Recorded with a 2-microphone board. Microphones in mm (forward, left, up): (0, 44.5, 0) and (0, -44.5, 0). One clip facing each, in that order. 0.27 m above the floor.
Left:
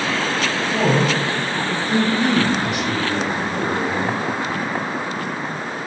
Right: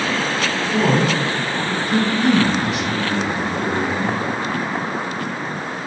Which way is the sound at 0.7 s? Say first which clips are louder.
Right 1 dB; 40° left (ahead or behind).